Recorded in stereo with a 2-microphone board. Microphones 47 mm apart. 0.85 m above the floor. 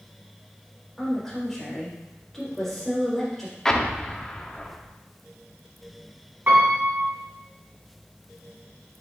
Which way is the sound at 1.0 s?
10° left (ahead or behind).